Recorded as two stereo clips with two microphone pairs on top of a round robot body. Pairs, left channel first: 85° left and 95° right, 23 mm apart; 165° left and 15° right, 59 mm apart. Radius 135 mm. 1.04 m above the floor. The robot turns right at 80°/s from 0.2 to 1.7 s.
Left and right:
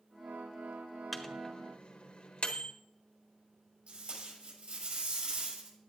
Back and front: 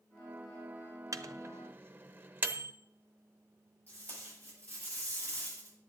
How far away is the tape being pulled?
About 8 m.